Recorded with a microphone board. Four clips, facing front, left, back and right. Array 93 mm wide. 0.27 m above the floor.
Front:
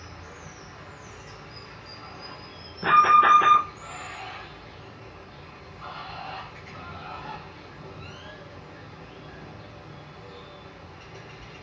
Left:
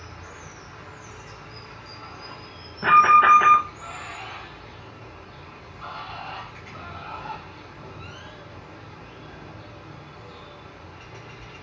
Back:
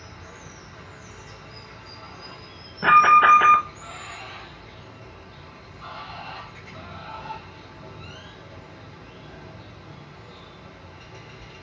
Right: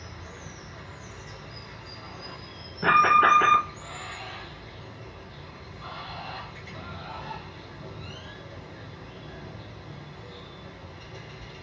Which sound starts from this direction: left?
Running water, at 0.0 s.